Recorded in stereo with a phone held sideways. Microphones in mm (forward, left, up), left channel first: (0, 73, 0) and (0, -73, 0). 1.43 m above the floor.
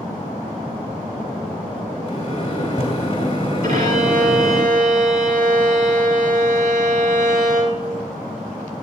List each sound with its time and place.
2.0 s a microwave: 60° left (ahead or behind), 3 m
3.6 s a violin: 85° right, 3.5 m